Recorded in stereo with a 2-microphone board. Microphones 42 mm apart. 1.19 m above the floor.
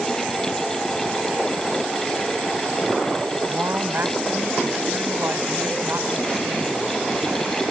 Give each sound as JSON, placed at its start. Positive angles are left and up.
{"t": 3.5, "sound": "a woman speaking", "side_deg": -65}